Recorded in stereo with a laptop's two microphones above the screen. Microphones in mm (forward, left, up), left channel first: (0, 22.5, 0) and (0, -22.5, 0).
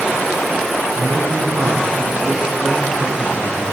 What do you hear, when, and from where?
0.9 s a man speaking: 85° right, 6 m